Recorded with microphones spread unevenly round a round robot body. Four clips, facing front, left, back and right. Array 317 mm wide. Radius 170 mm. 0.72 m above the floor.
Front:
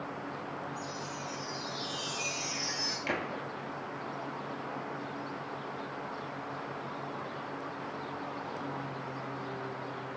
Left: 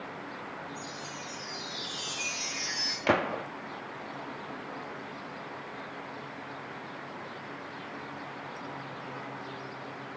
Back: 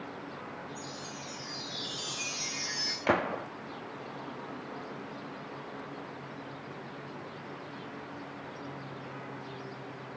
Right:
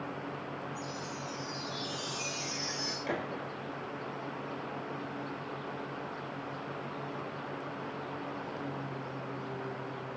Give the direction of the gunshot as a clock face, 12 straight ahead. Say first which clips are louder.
Left 10 dB, back 8 dB; 8 o'clock.